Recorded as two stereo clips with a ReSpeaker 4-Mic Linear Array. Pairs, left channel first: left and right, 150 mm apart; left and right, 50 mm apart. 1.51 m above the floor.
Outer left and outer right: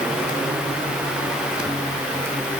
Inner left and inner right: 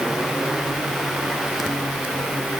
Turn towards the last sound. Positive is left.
No sound to turn to.